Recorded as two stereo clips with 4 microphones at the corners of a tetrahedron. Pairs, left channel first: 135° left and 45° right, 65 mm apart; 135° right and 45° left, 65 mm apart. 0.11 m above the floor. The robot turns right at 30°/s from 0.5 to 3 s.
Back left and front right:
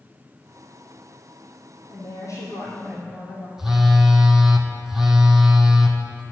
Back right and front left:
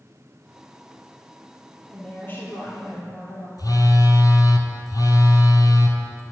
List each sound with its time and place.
1.9 s a woman speaking: 155° left, 3 m; by 3.5 s 170° right, 3 m
3.6 s a phone buzzing: 130° right, 0.9 m